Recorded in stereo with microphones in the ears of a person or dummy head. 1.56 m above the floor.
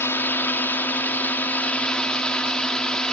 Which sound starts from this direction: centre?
A drone, at 0.0 s.